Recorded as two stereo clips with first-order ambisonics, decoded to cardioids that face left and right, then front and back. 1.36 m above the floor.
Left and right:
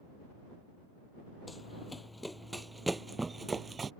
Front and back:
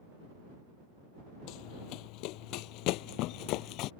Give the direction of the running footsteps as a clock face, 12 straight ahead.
12 o'clock.